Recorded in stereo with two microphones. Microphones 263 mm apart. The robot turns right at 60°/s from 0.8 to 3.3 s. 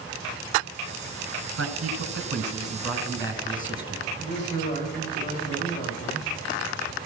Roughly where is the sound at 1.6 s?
Right.